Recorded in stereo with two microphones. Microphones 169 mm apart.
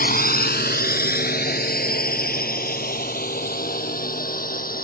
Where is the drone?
60° left (ahead or behind); by 4.8 s 55° left (ahead or behind).